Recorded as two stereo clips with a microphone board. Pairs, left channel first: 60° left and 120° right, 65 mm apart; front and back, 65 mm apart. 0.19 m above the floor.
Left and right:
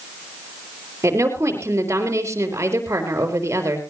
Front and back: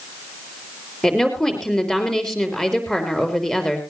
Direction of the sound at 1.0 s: 80° right.